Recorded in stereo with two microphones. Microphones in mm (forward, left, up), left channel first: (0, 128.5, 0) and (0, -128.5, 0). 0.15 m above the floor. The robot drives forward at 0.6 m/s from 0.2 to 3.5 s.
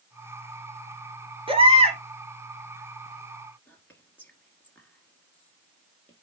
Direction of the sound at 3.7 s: 5° left (ahead or behind).